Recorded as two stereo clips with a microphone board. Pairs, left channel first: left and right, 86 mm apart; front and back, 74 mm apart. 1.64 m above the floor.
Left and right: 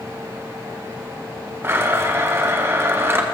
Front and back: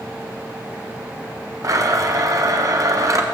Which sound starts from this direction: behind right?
A blender, at 1.6 s.